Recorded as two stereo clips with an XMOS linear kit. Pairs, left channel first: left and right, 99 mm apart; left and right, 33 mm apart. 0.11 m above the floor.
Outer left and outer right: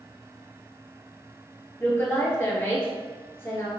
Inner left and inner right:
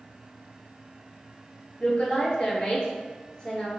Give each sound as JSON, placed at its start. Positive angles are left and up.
{"t": 1.8, "sound": "a woman speaking", "side_deg": 25, "distance_m": 1.4}